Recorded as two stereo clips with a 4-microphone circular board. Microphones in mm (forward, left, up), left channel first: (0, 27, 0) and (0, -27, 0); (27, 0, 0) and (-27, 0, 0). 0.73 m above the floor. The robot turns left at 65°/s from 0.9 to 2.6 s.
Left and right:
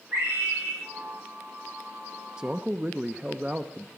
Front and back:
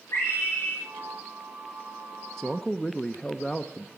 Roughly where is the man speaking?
Ahead right.